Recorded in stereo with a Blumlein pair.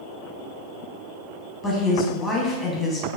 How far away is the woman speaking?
About 0.9 m.